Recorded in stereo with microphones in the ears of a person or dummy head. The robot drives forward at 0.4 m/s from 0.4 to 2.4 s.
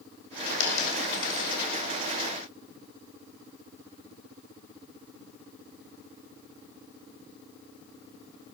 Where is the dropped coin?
80° left, 4 m; by 1.6 s 75° left (ahead or behind), 4 m.